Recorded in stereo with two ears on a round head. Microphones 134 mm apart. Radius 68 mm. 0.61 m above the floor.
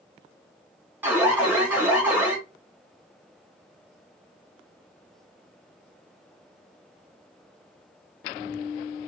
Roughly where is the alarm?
Centre.